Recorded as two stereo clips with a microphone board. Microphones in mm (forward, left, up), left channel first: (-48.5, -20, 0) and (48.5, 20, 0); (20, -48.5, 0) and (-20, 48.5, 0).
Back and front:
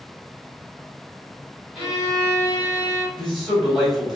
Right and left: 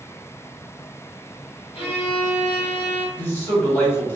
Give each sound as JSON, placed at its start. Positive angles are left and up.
{"t": 1.8, "sound": "a violin", "azimuth_deg": -65, "distance_m": 1.9}
{"t": 3.1, "sound": "a man speaking", "azimuth_deg": -70, "distance_m": 1.0}